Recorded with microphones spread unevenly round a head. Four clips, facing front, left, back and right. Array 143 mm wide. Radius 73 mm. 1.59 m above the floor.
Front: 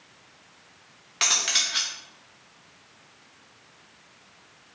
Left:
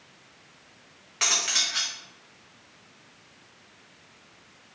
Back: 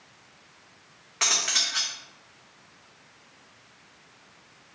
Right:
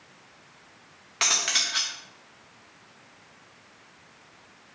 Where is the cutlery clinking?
70° right, 0.7 m.